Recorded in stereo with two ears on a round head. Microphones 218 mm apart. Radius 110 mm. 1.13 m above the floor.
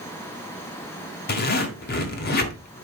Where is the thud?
I don't hear a thud.